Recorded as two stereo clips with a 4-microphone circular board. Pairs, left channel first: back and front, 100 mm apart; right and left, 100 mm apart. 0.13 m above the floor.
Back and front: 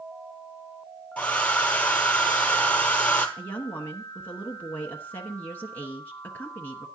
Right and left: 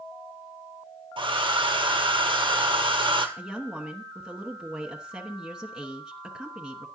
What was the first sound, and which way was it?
A hair dryer, 105° left.